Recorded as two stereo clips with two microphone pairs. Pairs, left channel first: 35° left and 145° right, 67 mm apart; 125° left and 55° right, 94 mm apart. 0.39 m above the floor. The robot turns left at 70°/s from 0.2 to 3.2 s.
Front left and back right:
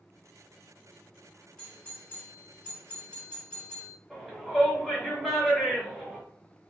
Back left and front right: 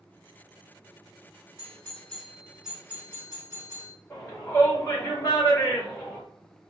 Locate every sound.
1.6 s a doorbell: 95° left, 1.4 m; by 4.0 s 15° right, 1.4 m
4.1 s a shout: 110° left, 1.4 m